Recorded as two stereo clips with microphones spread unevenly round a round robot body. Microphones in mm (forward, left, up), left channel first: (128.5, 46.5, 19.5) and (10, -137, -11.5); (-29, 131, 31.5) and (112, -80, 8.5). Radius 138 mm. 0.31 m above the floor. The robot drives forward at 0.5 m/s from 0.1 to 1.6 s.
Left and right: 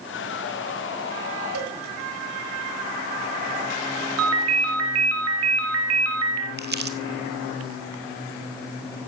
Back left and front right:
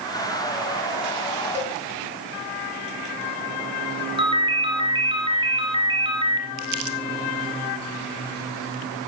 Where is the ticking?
I don't hear ticking.